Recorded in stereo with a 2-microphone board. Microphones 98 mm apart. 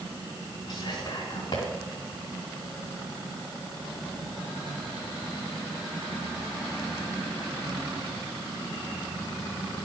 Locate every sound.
0.7 s whispering: 55° left (ahead or behind), 2.5 m